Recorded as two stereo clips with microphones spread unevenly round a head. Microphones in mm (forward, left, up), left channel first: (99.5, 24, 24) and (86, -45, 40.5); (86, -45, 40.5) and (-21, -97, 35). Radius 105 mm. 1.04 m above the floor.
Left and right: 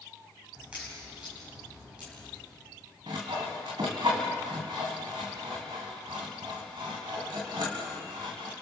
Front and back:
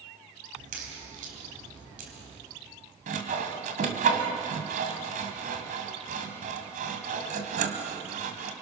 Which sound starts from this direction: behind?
A crack, at 0.6 s.